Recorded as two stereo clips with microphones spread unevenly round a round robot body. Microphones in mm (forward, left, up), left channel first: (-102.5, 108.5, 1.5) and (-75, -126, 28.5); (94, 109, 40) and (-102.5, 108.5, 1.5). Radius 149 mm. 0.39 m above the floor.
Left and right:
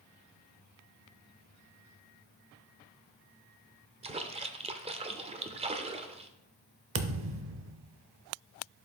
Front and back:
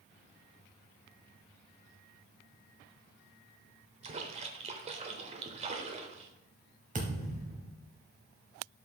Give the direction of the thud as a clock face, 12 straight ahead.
4 o'clock.